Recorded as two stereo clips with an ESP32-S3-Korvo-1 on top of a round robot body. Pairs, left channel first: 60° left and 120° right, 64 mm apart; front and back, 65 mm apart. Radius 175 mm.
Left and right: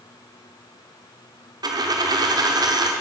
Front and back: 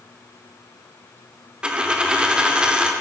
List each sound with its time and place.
1.6 s a dropped coin: 105° right, 0.8 m